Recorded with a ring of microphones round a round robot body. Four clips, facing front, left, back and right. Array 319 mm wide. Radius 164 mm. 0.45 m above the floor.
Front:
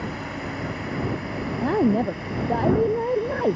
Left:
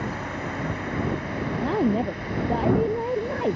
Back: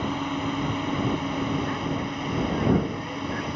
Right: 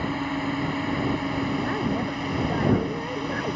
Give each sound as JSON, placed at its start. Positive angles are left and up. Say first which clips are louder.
{"t": 0.0, "sound": "a drone", "louder": "right 3 dB, back 4 dB", "azimuth_deg": -130}
{"t": 1.6, "sound": "a woman speaking", "louder": "left 3 dB, front 8 dB", "azimuth_deg": 25}